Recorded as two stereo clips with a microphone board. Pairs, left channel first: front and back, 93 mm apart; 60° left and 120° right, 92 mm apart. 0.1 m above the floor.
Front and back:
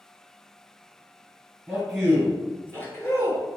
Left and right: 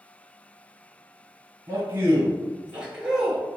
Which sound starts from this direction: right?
A man speaking, at 1.7 s.